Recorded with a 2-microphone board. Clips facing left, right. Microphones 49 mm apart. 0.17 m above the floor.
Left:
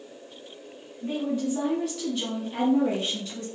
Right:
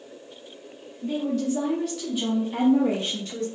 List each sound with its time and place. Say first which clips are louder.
1.0 s a woman speaking: right 2 dB; 25° left (ahead or behind), 1.4 m; by 3.5 s 45° right (ahead or behind), 1.6 m